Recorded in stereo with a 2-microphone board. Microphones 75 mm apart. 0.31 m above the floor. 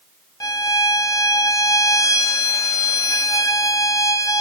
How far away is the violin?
About 0.6 m.